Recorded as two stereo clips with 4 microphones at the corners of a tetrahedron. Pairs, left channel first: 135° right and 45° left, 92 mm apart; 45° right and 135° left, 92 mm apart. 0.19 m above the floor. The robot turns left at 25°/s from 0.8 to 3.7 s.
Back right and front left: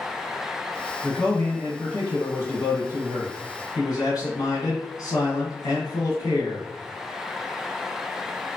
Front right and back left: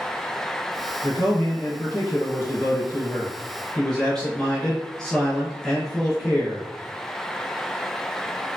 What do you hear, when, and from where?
1.0 s a man speaking: 65° right, 1.3 m; by 6.7 s 130° right, 1.3 m